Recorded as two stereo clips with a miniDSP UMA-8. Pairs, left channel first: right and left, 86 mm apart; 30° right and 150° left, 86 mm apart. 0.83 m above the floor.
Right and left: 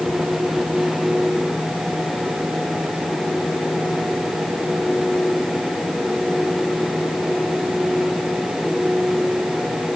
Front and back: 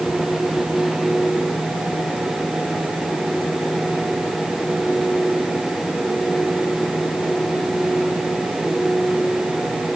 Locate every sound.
Only background noise.